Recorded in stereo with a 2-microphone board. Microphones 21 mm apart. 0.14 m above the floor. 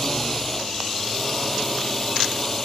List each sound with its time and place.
0.0 s a drone: 10° left (ahead or behind)